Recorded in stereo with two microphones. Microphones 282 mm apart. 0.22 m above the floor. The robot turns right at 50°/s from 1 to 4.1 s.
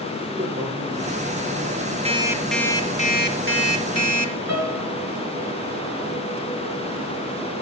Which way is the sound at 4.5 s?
65° right (ahead or behind).